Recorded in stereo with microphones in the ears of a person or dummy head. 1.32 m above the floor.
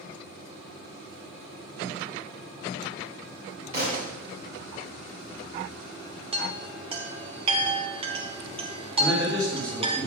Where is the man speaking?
25° right (ahead or behind), 2.5 m.